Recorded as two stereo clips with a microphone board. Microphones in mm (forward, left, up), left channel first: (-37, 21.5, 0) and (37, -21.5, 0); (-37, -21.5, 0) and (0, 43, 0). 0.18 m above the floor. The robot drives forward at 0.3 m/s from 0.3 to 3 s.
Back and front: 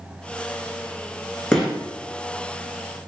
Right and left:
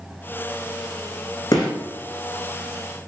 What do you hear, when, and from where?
1.5 s a gunshot: 130° right, 1.9 m